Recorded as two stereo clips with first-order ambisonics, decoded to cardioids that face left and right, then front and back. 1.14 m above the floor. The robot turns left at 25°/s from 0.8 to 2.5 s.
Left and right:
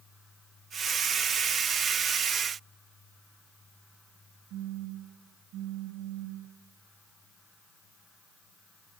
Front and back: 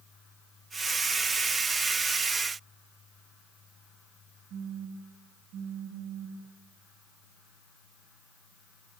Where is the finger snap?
No finger snap in this recording.